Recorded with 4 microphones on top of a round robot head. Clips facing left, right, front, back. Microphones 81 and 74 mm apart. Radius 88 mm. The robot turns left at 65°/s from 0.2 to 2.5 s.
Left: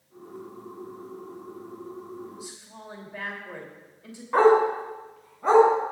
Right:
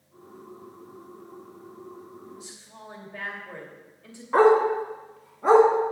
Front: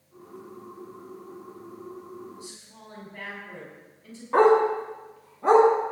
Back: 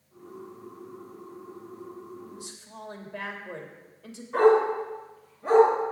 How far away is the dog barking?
About 3 m.